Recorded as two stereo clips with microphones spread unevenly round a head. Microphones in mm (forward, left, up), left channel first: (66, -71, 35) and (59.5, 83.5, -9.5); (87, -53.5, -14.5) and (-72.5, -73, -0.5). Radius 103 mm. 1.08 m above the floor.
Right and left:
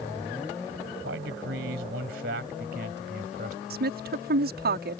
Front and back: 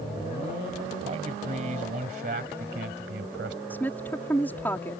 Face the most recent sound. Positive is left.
turn(degrees=90)